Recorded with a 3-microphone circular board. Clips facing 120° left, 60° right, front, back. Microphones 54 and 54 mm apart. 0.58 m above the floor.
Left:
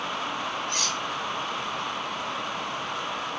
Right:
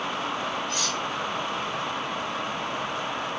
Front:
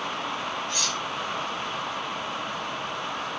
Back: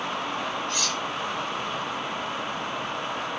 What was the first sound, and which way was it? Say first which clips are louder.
Cutlery clinking: right 1 dB, back 1 dB; 130° left.